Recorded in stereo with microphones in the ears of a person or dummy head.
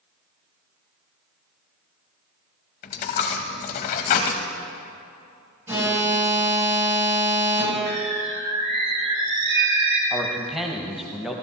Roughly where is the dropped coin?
Left.